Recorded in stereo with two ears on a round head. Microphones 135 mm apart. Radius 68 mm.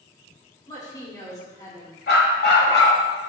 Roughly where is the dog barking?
Left.